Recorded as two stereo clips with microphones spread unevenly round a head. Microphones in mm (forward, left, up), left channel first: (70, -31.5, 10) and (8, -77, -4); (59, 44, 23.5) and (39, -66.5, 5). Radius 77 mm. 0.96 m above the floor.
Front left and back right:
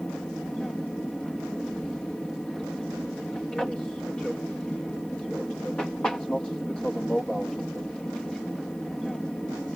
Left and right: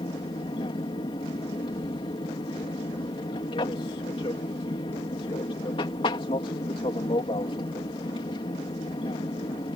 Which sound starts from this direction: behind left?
An aircraft, at 0.0 s.